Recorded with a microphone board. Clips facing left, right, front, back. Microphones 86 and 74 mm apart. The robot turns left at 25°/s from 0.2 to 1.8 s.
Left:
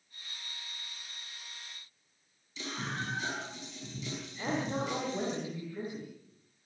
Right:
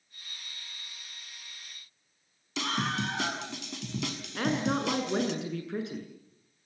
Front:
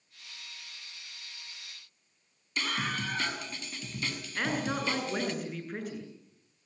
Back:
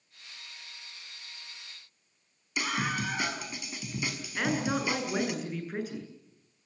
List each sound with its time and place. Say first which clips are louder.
2.6 s a scream: right 7 dB, back 2 dB; 105° right, 5.5 m
4.3 s a woman speaking: right 5 dB, back 2 dB; 95° right, 8.5 m